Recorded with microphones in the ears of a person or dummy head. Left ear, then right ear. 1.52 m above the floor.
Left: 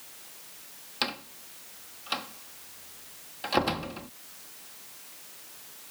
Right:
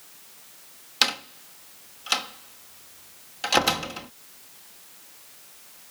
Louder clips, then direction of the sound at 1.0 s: Right 8 dB; 60° right (ahead or behind).